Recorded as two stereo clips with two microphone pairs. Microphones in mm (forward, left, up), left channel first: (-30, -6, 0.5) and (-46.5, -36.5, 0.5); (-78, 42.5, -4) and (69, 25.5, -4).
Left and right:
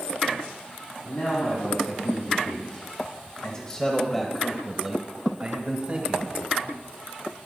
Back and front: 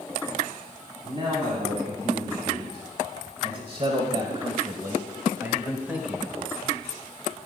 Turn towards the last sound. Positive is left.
turn(degrees=-90)